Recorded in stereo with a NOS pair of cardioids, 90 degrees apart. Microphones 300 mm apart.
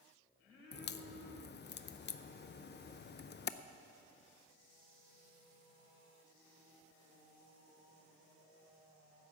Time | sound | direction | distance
0.7 | a crack | 35° left | 0.6 m